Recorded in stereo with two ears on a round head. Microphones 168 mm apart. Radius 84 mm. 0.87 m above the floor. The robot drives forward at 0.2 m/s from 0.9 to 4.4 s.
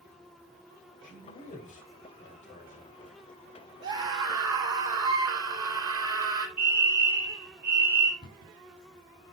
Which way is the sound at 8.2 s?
55° left (ahead or behind).